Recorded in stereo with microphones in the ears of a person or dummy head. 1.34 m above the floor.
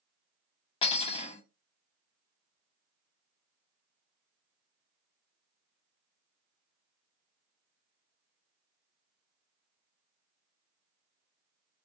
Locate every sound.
0.8 s cutlery clinking: 25° left (ahead or behind), 0.8 m